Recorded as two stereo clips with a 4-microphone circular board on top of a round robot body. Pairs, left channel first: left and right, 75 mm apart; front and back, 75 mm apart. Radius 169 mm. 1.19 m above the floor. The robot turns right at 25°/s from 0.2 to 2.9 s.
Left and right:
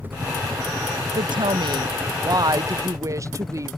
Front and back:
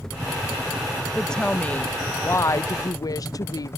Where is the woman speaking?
85° right; by 3.8 s 40° right.